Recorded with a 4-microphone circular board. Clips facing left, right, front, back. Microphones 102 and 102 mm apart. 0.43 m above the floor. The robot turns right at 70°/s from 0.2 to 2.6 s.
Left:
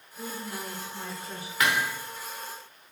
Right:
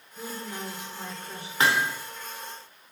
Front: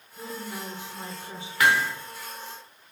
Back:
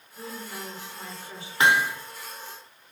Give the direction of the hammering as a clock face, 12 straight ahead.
4 o'clock.